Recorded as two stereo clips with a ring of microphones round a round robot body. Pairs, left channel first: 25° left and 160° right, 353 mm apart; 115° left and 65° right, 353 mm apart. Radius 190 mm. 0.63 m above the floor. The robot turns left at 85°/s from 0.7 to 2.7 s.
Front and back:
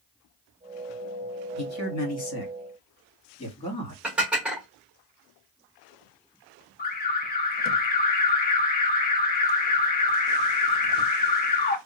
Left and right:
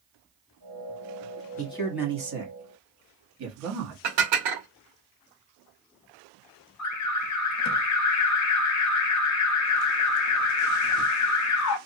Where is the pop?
No pop in this recording.